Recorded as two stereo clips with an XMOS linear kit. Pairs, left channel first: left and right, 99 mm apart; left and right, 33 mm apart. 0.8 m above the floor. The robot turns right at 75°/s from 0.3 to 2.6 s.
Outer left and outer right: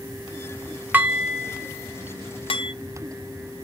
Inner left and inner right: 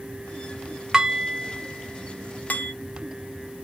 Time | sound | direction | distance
0.9 | dishes clattering | 20° right (ahead or behind) | 0.5 m